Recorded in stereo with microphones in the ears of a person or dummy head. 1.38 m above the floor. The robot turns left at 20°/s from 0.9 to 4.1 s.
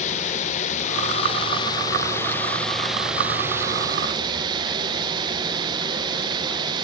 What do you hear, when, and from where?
0.0 s running water: 40° left, 1.0 m; by 6.8 s 25° right, 1.0 m